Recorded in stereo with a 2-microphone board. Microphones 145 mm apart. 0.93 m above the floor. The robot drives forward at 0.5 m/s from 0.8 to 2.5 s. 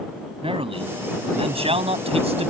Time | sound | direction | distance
0.4 | a man speaking | 35° right (ahead or behind) | ?